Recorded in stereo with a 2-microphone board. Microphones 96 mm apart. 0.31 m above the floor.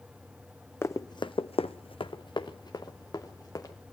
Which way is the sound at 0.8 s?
25° left (ahead or behind).